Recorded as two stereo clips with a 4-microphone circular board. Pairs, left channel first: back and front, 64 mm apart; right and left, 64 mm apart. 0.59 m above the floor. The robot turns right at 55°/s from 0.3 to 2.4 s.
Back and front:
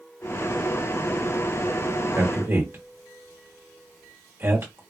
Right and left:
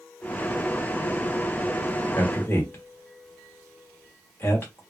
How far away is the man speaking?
About 1.3 m.